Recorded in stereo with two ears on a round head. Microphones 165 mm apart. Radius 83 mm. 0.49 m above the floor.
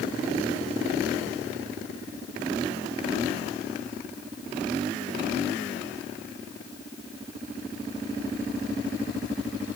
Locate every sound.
Only background noise.